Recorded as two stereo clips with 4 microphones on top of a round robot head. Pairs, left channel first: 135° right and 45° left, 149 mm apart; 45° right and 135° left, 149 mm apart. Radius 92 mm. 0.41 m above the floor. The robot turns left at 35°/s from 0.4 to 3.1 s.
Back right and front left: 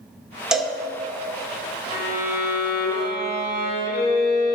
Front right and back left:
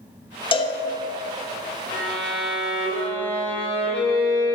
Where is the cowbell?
35° right, 1.0 m; by 0.8 s 45° right, 1.0 m.